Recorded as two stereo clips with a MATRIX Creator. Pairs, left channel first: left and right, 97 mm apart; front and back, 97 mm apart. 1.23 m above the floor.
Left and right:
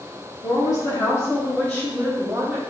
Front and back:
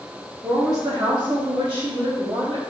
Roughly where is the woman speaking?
Behind left.